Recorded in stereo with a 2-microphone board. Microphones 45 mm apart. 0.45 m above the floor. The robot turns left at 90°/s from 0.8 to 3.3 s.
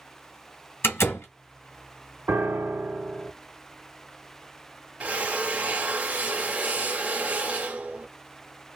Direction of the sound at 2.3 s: 90° right.